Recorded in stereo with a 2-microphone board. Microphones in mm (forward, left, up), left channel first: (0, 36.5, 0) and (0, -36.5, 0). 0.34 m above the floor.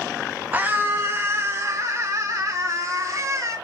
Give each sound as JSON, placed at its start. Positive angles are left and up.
{"t": 0.5, "sound": "a scream", "side_deg": -20, "distance_m": 1.3}